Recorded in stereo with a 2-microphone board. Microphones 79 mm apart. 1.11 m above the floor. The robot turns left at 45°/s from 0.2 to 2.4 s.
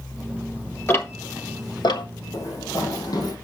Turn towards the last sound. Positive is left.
turn(degrees=60)  # may be behind; listen again after turning